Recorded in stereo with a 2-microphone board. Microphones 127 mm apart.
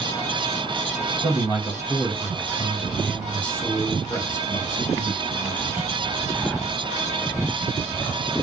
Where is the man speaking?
20° right (ahead or behind), 2 m; by 5.9 s 45° left (ahead or behind), 1.9 m.